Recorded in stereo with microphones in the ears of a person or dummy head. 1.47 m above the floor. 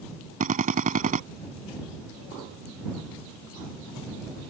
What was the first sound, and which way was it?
A drill, 40° right (ahead or behind).